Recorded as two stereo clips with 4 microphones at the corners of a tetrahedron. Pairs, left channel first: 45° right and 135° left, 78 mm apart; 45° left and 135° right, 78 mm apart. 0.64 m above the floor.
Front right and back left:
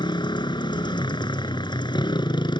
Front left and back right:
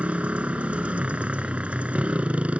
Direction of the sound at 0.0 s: 60° right.